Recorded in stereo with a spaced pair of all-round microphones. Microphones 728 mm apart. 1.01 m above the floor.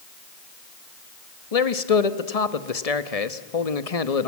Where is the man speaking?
55° left (ahead or behind), 1.2 m.